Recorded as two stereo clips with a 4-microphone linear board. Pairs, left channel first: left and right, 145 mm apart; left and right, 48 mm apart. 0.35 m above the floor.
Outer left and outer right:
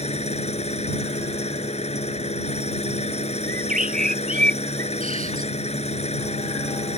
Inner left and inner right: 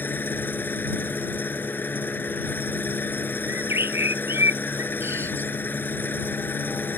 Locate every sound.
0.0 s an engine running: 45° left (ahead or behind)
3.5 s a bird: 65° right (ahead or behind)